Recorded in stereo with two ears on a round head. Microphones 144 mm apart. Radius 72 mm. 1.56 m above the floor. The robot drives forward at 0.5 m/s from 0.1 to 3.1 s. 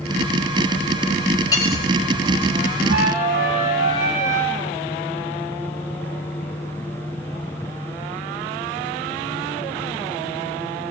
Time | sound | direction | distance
1.5 | cutlery clinking | 25° left (ahead or behind) | 4.5 m
2.9 | a flute | 75° right (ahead or behind) | 8 m